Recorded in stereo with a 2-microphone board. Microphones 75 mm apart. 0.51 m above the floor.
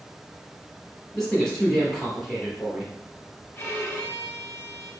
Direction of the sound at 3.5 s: 30° left (ahead or behind).